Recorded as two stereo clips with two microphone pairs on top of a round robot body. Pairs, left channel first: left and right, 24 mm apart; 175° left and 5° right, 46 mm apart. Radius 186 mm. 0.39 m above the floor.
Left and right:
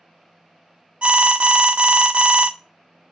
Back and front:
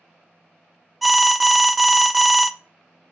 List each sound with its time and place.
1.0 s an alarm: 80° right, 0.5 m